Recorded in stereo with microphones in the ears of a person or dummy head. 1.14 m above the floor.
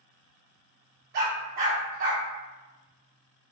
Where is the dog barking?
60° right (ahead or behind), 1.2 m.